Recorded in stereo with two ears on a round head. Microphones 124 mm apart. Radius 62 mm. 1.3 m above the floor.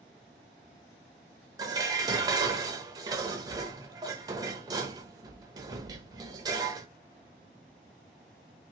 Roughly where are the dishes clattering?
Right.